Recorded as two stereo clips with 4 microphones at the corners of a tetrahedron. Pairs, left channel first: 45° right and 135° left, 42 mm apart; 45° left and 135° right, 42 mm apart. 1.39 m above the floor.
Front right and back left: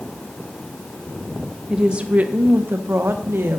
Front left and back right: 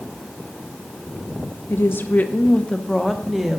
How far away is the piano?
I don't hear a piano.